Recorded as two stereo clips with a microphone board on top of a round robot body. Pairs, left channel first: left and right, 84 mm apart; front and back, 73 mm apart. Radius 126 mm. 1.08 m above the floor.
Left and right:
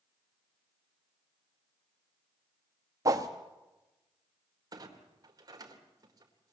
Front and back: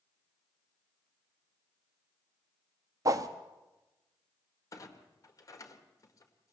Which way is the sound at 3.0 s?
140° right.